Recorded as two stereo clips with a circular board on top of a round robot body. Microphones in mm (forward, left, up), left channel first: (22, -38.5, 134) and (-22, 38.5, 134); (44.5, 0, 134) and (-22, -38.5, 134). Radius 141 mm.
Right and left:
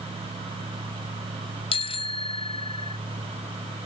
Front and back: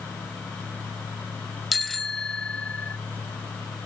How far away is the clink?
I don't hear a clink.